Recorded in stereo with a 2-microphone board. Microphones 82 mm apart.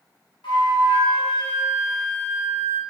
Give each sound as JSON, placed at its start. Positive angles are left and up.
{"t": 0.4, "sound": "a flute", "side_deg": 85, "distance_m": 0.6}